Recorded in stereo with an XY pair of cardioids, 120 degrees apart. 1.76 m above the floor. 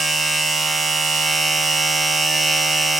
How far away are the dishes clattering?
No dishes clattering in this recording.